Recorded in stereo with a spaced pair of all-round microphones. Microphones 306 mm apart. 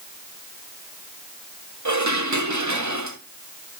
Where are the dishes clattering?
65° right (ahead or behind), 1.4 m.